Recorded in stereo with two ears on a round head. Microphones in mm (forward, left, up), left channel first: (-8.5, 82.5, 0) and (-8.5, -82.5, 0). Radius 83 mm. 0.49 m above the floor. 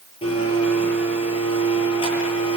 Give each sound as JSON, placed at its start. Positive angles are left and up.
{"t": 0.2, "sound": "a blender", "side_deg": 30, "distance_m": 8.0}